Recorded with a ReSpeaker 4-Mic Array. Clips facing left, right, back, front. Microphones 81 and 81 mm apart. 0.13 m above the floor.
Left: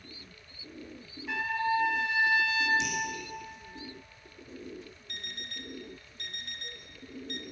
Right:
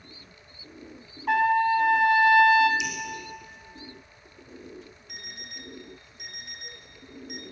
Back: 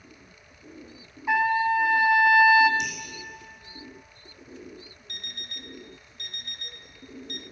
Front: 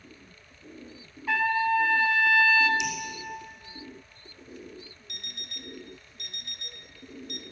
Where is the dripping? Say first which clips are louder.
Right 2 dB, front 1 dB; 140° left, 3 m.